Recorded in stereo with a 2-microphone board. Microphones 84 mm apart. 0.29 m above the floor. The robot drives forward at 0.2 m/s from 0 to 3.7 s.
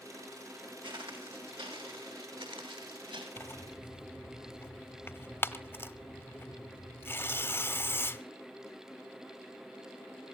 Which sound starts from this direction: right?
Footsteps, at 0.8 s.